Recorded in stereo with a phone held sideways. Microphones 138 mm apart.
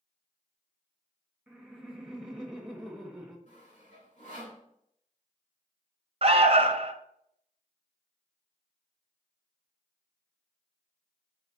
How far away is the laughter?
About 1.2 m.